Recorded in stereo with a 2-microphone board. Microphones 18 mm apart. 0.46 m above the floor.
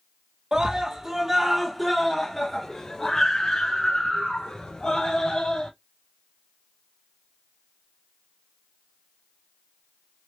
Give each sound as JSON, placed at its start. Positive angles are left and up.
{"t": 0.5, "sound": "a scream", "side_deg": -45, "distance_m": 1.5}